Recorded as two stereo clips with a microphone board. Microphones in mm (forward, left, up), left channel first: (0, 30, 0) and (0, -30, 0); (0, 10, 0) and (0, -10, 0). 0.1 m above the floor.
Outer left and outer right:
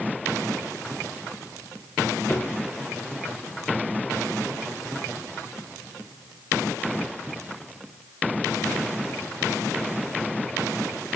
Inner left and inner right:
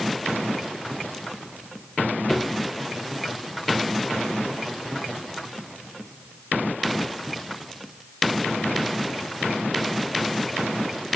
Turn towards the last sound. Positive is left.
turn(degrees=40)  # may be behind; listen again after turning